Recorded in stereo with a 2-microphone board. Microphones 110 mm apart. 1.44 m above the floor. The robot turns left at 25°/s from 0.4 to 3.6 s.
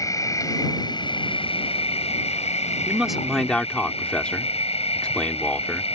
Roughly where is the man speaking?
Centre.